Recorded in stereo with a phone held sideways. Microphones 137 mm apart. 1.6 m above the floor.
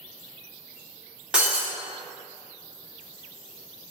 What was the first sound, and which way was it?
Breaking glass, 5° right (ahead or behind).